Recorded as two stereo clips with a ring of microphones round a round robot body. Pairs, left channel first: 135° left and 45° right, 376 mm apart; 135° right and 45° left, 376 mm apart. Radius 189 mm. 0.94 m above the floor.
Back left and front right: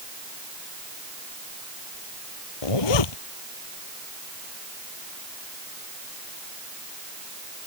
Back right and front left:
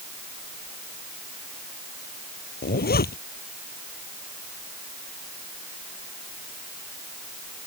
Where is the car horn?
No car horn in this recording.